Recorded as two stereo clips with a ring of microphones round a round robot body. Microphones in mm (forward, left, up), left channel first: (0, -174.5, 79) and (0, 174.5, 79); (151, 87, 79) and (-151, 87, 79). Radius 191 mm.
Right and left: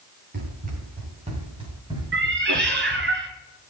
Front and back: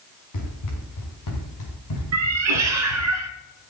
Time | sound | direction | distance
0.3 | running footsteps | 25° left | 5 m
2.1 | a cat meowing | 150° left | 1.5 m